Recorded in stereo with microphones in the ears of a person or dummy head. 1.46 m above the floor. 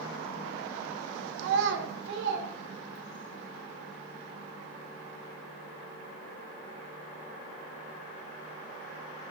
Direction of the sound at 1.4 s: 70° right (ahead or behind).